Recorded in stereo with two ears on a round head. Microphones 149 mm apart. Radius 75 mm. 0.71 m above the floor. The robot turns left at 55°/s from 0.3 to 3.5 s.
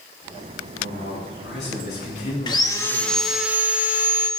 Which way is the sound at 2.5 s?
45° left.